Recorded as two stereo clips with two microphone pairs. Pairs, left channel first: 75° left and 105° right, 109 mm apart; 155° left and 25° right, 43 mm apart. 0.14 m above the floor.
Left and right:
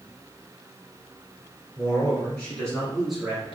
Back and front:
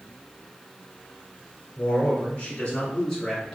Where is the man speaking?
120° left, 1.6 m; by 3.5 s 120° right, 1.3 m.